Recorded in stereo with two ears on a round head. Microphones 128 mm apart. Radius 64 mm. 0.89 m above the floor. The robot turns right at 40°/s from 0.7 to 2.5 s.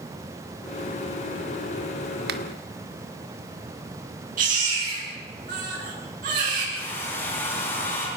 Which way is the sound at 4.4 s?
60° right (ahead or behind).